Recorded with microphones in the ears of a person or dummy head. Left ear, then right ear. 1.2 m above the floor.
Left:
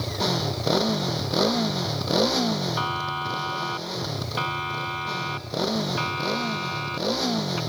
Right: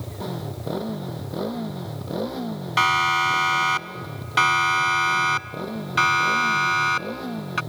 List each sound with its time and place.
0.0 s a motorcycle: 65° left (ahead or behind)
2.8 s a siren: 60° right (ahead or behind); by 7.6 s 50° right (ahead or behind)